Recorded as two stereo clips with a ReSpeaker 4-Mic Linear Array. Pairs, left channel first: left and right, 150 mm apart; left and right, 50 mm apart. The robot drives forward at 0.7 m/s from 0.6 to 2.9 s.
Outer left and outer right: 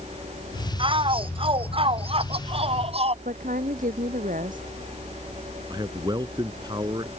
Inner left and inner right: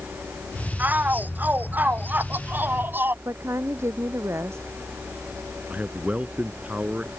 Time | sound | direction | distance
0.8 | a shout | 35° right (ahead or behind) | ?
3.2 | a woman speaking | 65° right (ahead or behind) | ?
5.7 | a man speaking | 30° right (ahead or behind) | ?